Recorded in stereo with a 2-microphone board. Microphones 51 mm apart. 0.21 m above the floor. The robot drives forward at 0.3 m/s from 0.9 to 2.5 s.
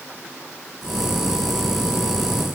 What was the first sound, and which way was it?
Only background noise.